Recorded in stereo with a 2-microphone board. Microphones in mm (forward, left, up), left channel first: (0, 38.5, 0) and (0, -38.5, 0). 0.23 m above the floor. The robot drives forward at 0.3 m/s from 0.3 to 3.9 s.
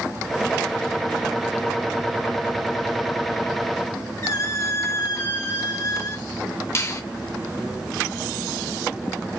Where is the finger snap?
40° left (ahead or behind), 1.2 m.